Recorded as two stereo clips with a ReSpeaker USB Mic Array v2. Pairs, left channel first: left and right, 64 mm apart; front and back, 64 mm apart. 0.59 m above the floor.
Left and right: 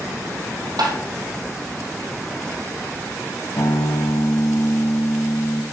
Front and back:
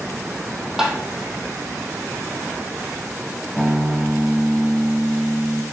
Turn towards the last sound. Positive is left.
turn(degrees=100)